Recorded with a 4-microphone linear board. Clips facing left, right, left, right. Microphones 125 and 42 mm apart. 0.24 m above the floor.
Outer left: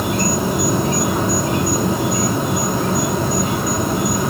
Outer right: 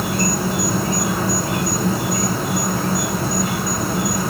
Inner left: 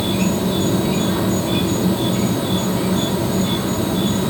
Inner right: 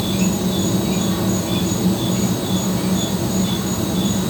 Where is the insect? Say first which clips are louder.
Outer left 2 dB, inner left 1 dB; 20° left (ahead or behind), 1.0 m.